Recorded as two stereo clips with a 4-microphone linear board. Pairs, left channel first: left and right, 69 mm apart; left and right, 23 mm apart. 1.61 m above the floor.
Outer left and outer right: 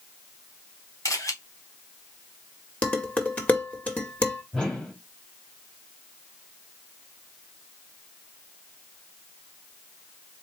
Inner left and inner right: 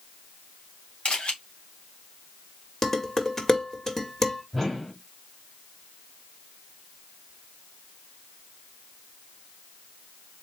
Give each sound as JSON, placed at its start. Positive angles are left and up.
{"t": 1.1, "sound": "a camera shutter", "side_deg": 50, "distance_m": 1.7}
{"t": 2.8, "sound": "dishes clattering", "side_deg": 25, "distance_m": 1.5}
{"t": 4.5, "sound": "a whoosh", "side_deg": 10, "distance_m": 1.7}